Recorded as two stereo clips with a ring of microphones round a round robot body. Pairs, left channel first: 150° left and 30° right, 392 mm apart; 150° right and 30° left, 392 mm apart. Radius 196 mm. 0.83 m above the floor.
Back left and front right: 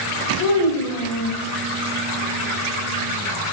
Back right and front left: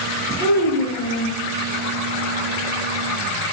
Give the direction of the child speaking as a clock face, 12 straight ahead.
7 o'clock.